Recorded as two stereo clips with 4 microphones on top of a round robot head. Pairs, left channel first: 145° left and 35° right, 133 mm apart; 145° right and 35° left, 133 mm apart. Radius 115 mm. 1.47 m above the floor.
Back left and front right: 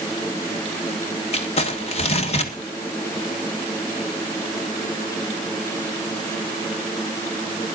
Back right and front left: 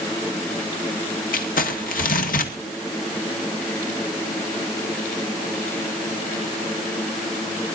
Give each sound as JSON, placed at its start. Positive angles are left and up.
{"t": 1.3, "sound": "crumpling", "azimuth_deg": -170, "distance_m": 1.9}